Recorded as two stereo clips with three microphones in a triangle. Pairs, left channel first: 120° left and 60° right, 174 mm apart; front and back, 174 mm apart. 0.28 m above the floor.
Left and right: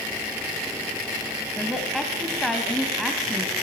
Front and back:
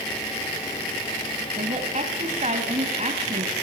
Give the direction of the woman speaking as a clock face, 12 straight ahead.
5 o'clock.